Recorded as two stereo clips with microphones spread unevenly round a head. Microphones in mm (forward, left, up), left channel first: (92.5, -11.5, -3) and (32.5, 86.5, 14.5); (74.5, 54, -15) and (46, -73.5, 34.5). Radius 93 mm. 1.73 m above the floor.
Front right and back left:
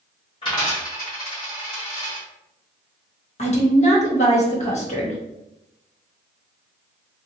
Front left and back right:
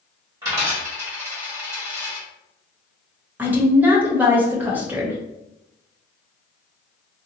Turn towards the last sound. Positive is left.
turn(degrees=-35)